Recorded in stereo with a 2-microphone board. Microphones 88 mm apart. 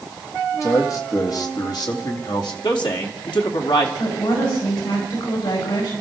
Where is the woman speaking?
90° left, 9.5 m.